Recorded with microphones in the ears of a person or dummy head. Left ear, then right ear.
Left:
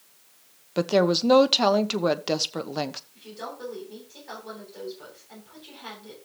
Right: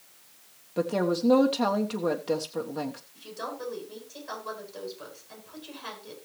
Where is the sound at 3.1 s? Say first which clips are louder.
Right 1 dB; centre (ahead or behind), 9.5 m.